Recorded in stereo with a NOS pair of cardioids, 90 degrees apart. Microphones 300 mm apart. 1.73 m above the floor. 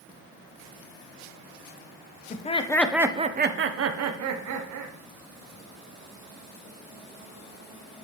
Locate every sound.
2.3 s laughter: 25° left, 1.0 m; by 4.9 s 75° right, 1.6 m